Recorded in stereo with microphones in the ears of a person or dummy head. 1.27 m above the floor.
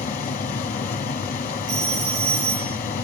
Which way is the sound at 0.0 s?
45° left (ahead or behind).